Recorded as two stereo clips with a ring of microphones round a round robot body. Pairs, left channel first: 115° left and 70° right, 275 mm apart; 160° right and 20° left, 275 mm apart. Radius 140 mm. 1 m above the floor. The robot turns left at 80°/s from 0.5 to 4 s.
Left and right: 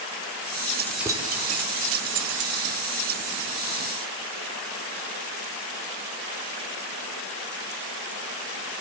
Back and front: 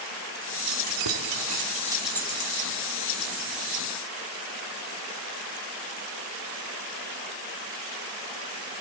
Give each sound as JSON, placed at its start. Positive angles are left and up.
{"t": 0.7, "sound": "keys jangling", "azimuth_deg": 45, "distance_m": 1.9}